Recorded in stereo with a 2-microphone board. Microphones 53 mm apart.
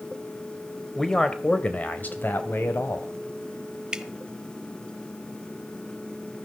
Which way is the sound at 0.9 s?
5° left (ahead or behind).